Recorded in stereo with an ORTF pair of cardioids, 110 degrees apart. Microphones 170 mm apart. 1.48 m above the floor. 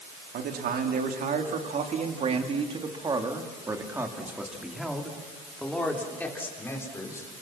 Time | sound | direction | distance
0.3 | a man speaking | 65° right | 3.5 m